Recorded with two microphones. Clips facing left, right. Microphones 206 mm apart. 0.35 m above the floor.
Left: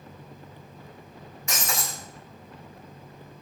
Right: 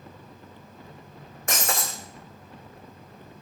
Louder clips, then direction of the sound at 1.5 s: Right 3 dB; 50° right (ahead or behind).